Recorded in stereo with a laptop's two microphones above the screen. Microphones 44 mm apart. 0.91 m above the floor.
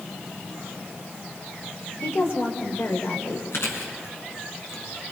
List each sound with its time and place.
2.0 s a woman speaking: 80° left, 2.5 m
3.5 s chewing: 70° left (ahead or behind), 3 m